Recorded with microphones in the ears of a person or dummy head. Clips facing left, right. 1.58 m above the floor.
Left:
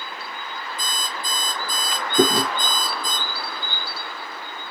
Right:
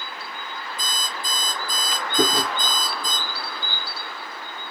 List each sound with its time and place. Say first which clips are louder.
0.8 s an alarm clock: left 1 dB; 45° left (ahead or behind), 1.1 m
2.2 s chewing: left 4 dB; 85° left, 0.8 m